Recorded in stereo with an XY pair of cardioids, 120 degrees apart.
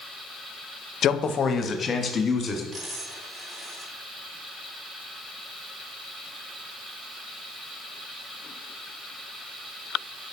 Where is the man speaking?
55° left, 0.6 m; by 2.6 s 30° left, 2 m.